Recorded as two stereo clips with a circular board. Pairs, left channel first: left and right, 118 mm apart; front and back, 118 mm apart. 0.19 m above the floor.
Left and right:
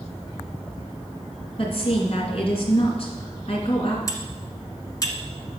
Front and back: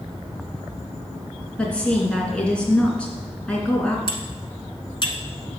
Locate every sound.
1.6 s a woman speaking: 80° left, 2.5 m
4.1 s cutlery clinking: 35° left, 1.3 m